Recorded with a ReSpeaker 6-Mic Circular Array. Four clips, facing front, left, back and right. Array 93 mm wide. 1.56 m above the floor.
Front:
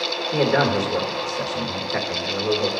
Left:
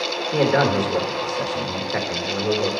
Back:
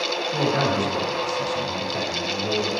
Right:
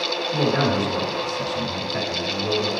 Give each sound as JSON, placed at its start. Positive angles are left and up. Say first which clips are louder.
{"t": 0.3, "sound": "a man speaking", "louder": "left 3 dB, front 4 dB", "azimuth_deg": 50, "distance_m": 1.7}